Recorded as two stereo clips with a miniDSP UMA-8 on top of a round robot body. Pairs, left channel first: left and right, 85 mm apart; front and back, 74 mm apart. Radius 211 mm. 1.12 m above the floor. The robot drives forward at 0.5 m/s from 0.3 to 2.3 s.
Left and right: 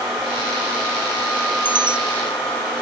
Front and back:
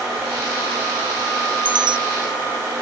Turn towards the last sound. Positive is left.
turn(degrees=-170)